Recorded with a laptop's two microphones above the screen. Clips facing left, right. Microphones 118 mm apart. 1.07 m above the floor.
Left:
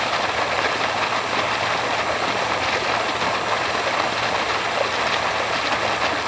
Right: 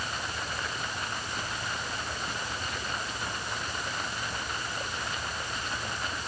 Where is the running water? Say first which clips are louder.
Left 14 dB; 90° left.